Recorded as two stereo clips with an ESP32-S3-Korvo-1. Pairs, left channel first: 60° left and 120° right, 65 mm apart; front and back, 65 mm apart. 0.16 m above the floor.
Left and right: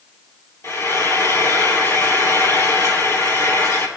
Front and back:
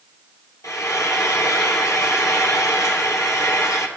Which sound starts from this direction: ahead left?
Frying, at 0.6 s.